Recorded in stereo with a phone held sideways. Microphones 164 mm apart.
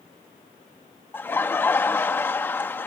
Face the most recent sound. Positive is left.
turn(degrees=10)  # may be behind; listen again after turning